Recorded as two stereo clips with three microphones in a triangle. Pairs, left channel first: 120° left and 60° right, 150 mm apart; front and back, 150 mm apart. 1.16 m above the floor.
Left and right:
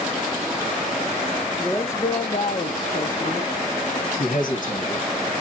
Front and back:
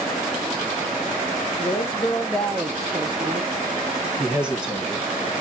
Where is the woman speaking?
40° left, 0.7 m; by 3.5 s 135° left, 0.9 m.